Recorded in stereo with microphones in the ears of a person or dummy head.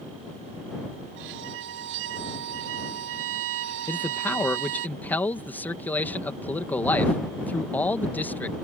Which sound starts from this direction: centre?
A man speaking, at 3.9 s.